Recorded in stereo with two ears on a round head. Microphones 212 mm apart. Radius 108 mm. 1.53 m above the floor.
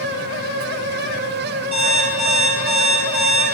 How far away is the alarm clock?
About 5 m.